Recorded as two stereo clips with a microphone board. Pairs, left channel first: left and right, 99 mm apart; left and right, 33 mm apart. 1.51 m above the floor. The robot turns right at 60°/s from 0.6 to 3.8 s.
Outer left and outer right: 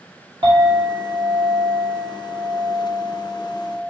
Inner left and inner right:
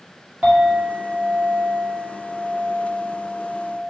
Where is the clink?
120° right, 2.5 m; by 3.9 s 70° left, 2.5 m.